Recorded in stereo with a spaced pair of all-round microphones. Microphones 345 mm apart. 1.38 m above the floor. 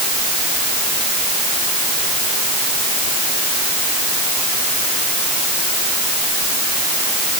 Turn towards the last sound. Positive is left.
No sound to turn to.